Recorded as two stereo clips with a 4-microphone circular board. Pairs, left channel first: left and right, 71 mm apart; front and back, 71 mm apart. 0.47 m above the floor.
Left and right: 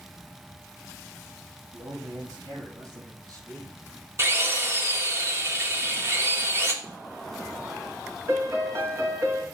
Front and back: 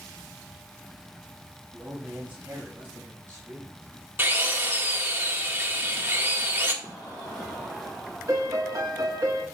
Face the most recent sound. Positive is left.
turn(degrees=-140)